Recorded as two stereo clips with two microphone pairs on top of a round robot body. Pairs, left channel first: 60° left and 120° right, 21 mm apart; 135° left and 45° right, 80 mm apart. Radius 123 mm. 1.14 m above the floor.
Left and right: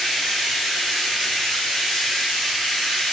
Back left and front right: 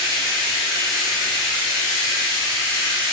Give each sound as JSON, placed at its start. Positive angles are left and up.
{"t": 0.0, "sound": "running water", "azimuth_deg": 75, "distance_m": 1.3}